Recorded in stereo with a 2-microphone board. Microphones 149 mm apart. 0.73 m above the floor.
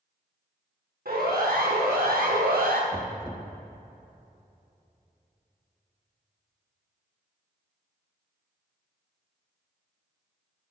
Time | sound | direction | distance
1.1 | a siren | 85° right | 5 m
2.9 | knocking | 5° left (ahead or behind) | 1.2 m